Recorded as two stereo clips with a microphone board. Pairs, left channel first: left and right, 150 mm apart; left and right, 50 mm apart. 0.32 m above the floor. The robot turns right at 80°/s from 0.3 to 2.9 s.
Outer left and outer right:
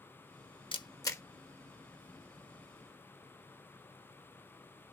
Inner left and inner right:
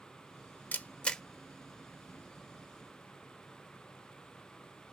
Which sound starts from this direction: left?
A camera shutter, at 0.7 s.